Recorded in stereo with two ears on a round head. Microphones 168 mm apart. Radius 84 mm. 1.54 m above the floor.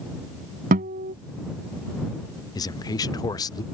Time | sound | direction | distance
0.7 | a guitar | 45° right (ahead or behind) | ?
2.5 | a man speaking | 20° left (ahead or behind) | ?